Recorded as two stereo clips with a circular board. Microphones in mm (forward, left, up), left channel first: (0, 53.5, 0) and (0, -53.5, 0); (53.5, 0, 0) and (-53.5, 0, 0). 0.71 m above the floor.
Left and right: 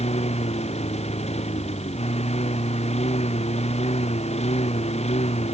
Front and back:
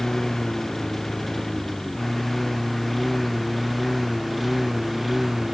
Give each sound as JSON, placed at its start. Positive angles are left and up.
{"t": 0.0, "sound": "a lawn mower", "azimuth_deg": 90}